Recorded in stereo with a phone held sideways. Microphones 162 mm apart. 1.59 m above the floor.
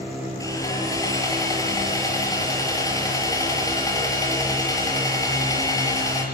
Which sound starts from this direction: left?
Sawing, at 0.4 s.